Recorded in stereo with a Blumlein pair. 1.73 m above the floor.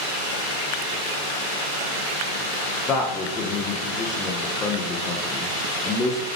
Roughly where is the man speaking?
Ahead left.